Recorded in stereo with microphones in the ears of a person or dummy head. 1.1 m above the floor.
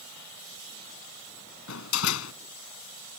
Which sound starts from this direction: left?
A door slam, at 1.7 s.